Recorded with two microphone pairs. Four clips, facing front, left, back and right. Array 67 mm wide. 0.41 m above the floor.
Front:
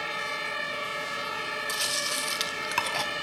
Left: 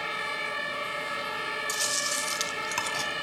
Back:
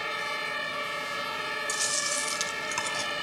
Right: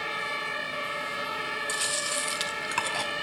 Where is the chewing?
25° right, 1.1 m.